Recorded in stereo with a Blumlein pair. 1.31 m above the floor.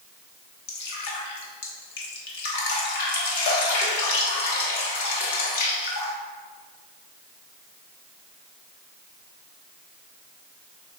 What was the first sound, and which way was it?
Dripping, 55° left.